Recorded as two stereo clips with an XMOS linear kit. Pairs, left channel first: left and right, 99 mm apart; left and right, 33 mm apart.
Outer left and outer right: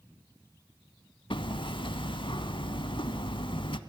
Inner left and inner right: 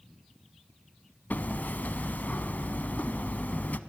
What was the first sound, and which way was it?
Hammering, 65° left (ahead or behind).